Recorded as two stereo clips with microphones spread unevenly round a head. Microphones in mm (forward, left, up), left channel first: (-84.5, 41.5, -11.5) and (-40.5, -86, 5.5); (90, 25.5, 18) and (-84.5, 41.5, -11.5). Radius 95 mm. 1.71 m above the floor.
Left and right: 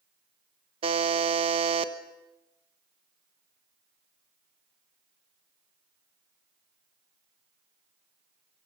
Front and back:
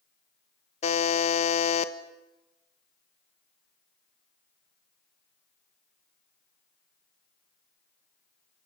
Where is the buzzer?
40° right, 1.1 m.